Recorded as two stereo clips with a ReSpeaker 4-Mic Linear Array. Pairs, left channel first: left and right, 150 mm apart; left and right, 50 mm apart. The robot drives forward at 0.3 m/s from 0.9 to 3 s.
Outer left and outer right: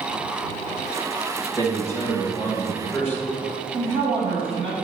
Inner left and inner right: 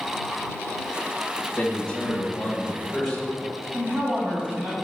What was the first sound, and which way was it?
A man speaking, 20° left (ahead or behind).